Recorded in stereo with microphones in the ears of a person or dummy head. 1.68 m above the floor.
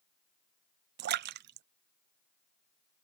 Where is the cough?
I don't hear a cough.